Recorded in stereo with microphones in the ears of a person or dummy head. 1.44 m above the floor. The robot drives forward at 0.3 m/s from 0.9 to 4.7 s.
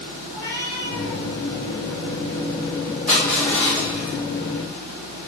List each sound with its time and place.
0.3 s a cat meowing: 5° right (ahead or behind), 2 m
3.1 s crushing: 10° left (ahead or behind), 1.9 m